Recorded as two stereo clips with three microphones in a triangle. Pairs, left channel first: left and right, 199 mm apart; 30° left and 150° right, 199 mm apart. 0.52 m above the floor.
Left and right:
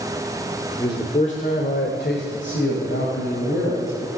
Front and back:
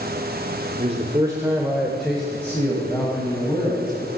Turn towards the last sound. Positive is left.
turn(degrees=95)